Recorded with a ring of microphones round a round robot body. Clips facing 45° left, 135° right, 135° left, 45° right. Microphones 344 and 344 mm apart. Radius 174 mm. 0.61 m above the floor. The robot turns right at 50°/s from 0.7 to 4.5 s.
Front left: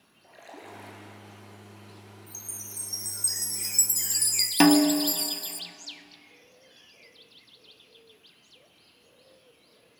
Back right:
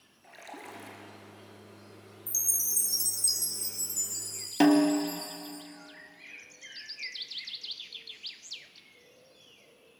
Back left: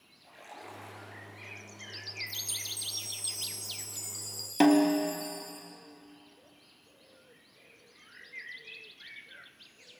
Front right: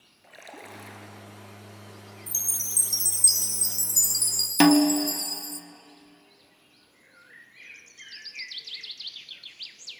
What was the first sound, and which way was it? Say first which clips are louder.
A splash: front left 1 dB, front right 4 dB; 70° right.